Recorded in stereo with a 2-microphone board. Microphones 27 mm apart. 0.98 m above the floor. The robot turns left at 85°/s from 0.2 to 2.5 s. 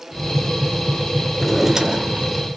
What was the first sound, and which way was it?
A drawer, 10° left.